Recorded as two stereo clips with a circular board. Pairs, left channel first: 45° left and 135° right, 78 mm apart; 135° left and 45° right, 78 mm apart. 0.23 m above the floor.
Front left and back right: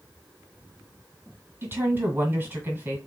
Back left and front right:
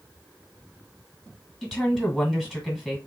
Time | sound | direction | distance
1.6 | a woman speaking | 125° right | 1.5 m